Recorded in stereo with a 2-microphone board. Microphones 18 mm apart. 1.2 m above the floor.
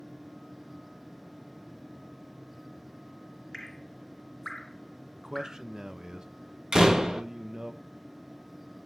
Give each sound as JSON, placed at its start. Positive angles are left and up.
{"t": 3.5, "sound": "dripping", "side_deg": 15, "distance_m": 0.6}
{"t": 5.2, "sound": "a man speaking", "side_deg": -45, "distance_m": 0.8}
{"t": 6.7, "sound": "a door slam", "side_deg": -45, "distance_m": 1.3}